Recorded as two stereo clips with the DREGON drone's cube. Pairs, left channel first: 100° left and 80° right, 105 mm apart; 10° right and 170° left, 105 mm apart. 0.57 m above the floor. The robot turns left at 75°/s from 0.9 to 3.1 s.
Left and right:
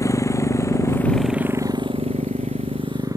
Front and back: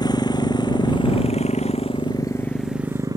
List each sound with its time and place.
0.0 s a motorcycle: 40° left; by 3.2 s 135° right